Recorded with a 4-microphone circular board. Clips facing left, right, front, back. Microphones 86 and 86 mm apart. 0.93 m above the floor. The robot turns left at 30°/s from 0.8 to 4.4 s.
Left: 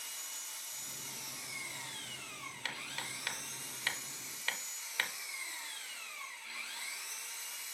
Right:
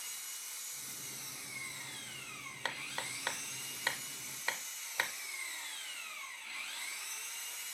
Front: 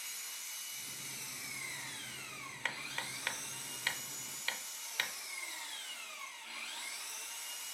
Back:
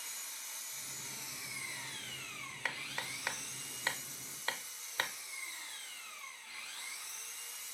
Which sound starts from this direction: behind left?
An engine running, at 0.0 s.